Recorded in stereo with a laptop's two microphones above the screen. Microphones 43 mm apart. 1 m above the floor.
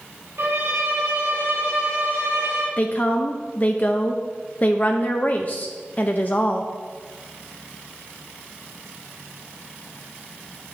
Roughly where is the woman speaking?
Left.